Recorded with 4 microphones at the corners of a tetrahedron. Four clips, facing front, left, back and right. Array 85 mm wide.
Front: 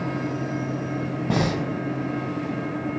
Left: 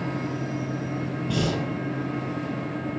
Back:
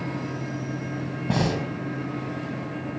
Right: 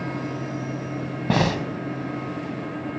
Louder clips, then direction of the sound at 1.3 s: Right 5 dB, front 1 dB; 90° right.